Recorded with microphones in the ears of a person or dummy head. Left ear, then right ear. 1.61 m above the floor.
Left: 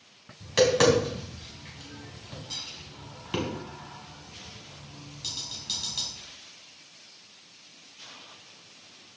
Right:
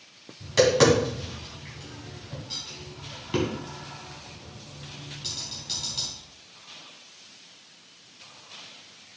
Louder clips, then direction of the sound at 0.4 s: Right 2 dB; 15° left (ahead or behind).